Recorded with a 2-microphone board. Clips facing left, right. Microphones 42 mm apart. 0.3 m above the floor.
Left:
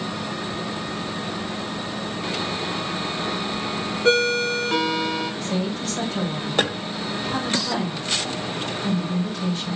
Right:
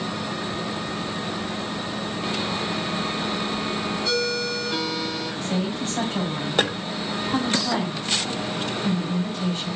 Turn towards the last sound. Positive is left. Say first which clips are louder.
# even
turn(degrees=-45)  # may be behind; listen again after turning